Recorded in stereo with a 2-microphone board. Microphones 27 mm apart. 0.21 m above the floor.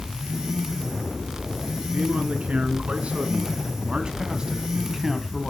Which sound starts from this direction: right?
A man speaking, at 1.9 s.